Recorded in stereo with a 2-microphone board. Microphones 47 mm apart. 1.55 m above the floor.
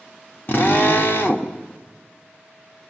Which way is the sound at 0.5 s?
55° left (ahead or behind).